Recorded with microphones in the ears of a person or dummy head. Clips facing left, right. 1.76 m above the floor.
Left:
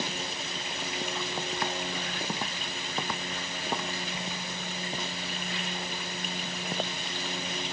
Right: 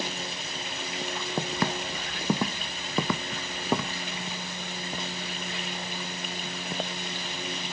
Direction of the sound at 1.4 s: 60° right (ahead or behind).